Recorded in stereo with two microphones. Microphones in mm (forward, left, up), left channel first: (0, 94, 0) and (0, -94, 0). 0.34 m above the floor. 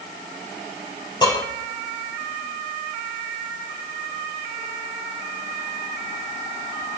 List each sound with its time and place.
1.2 s dishes clattering: 25° left (ahead or behind), 5 m